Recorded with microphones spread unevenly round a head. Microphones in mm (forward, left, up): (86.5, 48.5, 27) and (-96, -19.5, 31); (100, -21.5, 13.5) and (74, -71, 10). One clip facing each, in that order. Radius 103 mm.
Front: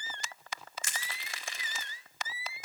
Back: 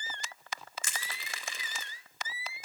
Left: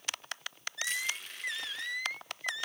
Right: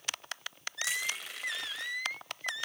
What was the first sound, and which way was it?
Crushing, 165° right.